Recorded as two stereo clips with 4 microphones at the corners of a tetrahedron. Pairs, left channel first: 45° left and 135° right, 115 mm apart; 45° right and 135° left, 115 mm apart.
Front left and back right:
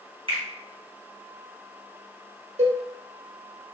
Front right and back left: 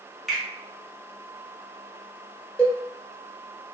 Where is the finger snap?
135° right, 1.2 m.